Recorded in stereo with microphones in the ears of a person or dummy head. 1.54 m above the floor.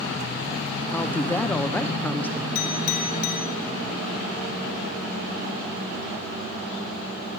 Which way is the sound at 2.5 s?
50° left (ahead or behind).